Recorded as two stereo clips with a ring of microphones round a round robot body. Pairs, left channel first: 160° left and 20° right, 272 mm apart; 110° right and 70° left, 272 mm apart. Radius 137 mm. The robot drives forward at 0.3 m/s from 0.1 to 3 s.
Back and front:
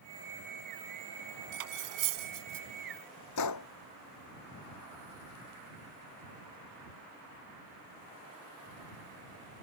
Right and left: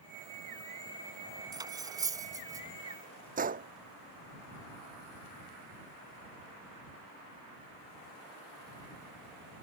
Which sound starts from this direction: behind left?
A gunshot, at 3.4 s.